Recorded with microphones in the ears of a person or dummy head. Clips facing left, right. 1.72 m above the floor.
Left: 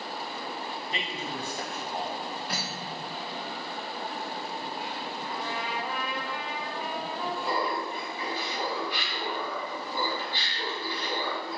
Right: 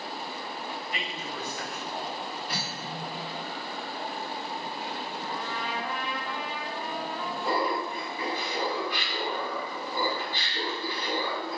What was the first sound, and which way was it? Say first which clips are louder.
A man speaking: left 1 dB; 30° left (ahead or behind).